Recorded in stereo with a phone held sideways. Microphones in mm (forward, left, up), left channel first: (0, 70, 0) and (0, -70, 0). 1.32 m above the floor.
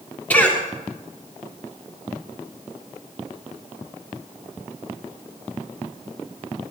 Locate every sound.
0.3 s a cough: 10° left (ahead or behind), 3.5 m